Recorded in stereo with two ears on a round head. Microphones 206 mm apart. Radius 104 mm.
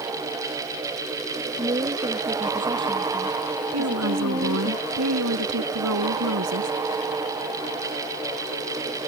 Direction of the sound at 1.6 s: 20° right (ahead or behind).